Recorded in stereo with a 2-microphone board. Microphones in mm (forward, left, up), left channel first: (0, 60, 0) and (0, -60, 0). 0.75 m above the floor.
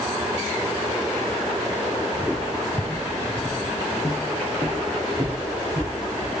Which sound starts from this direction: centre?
Footsteps, at 2.1 s.